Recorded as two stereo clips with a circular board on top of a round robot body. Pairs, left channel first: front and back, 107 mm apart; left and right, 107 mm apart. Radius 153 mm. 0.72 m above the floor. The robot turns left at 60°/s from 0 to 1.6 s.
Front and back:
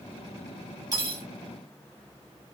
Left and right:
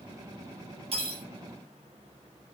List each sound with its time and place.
0.9 s cutlery clinking: 120° right, 3.5 m; by 1.2 s 140° right, 3.5 m